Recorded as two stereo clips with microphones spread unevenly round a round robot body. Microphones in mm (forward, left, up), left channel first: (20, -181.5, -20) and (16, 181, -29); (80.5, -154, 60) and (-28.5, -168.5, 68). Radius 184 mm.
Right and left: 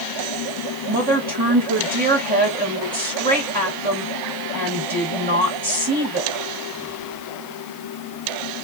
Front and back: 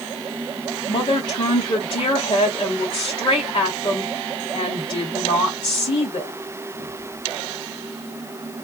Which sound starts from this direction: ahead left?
A woman speaking, at 0.9 s.